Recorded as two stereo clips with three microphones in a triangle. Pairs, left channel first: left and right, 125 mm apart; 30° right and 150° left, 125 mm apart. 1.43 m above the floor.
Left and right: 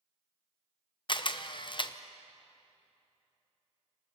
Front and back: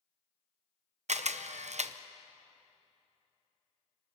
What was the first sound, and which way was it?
A camera shutter, 135° left.